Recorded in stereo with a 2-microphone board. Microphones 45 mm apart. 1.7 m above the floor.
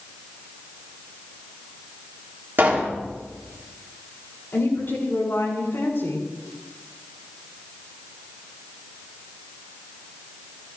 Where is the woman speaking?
55° left (ahead or behind), 7 m.